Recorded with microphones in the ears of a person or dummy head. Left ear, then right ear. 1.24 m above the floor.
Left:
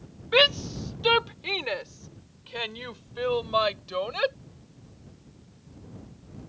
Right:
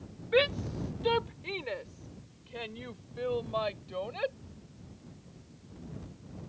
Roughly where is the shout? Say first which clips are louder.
Left 7 dB; left.